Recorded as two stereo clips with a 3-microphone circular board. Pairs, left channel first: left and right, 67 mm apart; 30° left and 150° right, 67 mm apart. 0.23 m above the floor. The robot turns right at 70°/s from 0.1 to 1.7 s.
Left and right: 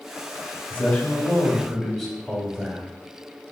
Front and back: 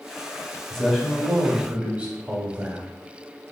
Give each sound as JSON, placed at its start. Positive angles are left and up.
{"t": 0.7, "sound": "a man speaking", "azimuth_deg": 105, "distance_m": 0.9}